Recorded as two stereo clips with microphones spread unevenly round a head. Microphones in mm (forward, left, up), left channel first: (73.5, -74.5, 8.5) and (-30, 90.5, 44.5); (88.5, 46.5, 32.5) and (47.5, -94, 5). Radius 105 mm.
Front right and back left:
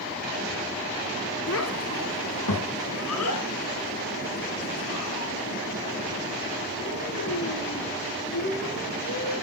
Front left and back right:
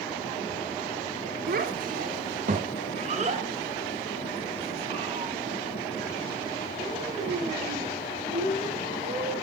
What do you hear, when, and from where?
1.5 s a child speaking: 85° right, 2 m; by 9.3 s 50° right, 10.5 m